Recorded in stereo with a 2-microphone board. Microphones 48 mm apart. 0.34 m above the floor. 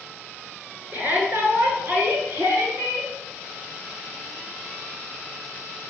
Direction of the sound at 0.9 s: 35° right (ahead or behind).